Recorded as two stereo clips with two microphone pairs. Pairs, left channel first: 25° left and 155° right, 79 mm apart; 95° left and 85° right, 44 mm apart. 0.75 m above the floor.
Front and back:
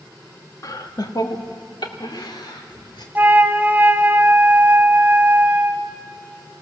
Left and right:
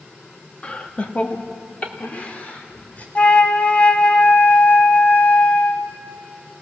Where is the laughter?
40° left, 1.2 m.